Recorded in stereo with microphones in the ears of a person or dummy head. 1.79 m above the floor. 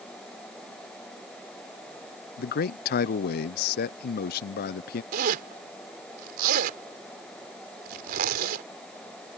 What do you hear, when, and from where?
2.4 s a man speaking: 55° left (ahead or behind)
5.1 s a zipper: 55° right (ahead or behind)